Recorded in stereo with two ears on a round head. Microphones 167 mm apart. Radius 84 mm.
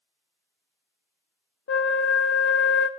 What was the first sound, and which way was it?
A flute, 65° left (ahead or behind).